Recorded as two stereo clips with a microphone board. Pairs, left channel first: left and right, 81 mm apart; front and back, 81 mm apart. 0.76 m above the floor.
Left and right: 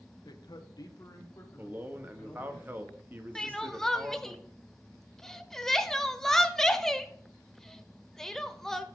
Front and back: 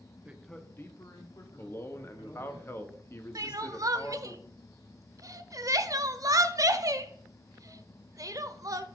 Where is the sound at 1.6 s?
40° right, 0.9 m.